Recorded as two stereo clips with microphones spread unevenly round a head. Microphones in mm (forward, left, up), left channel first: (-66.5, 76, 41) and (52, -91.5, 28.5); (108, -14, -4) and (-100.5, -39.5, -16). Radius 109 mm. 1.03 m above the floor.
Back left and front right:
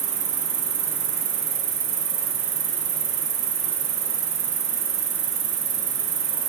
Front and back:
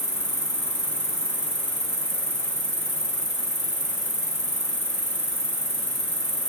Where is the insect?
75° right, 0.8 m.